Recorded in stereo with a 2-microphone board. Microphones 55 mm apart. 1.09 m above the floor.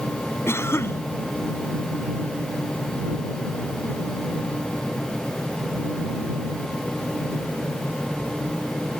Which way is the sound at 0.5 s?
50° left (ahead or behind).